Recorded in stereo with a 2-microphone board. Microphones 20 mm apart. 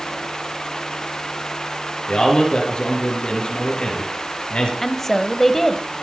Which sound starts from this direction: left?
A man speaking, at 2.1 s.